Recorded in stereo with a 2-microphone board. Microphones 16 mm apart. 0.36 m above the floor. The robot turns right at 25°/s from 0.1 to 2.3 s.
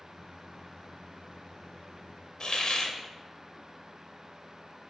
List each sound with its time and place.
2.4 s a hiss: 50° left (ahead or behind), 0.6 m